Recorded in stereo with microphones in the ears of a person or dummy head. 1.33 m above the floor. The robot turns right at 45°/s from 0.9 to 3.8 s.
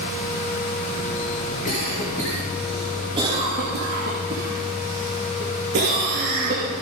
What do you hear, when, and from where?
1.6 s a cough: 45° left (ahead or behind), 2.5 m; by 6.7 s 55° right (ahead or behind), 2.5 m